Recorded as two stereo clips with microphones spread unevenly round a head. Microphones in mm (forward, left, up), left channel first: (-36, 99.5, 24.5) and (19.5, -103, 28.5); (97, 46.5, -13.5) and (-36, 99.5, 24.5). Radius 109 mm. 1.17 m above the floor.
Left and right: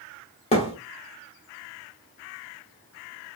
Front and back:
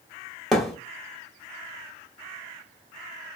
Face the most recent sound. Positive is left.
turn(degrees=95)